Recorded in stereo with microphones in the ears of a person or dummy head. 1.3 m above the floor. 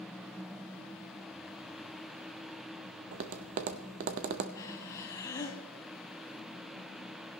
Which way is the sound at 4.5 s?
20° left (ahead or behind).